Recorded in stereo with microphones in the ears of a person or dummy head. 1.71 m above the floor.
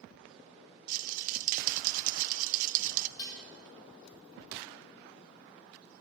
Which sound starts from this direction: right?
A rattle, at 0.9 s.